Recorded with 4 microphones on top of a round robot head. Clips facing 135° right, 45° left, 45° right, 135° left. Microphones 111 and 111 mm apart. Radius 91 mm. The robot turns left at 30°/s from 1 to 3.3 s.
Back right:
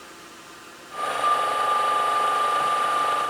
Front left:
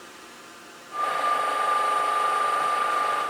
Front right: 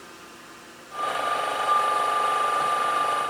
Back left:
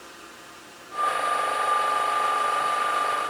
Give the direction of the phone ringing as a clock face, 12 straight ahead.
No phone ringing in this recording.